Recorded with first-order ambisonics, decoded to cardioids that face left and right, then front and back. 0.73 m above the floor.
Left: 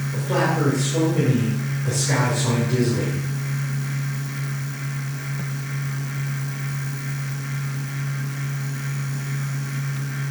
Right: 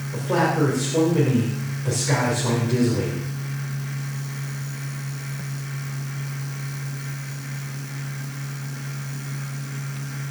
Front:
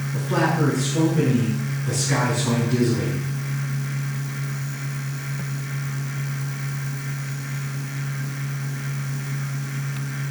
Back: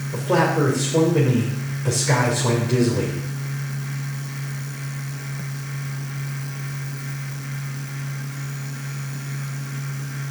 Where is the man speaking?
170° right, 2.5 m.